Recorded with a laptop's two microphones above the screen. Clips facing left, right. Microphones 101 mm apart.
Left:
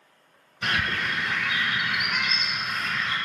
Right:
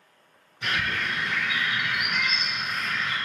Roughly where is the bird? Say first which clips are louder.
Left 1 dB; left.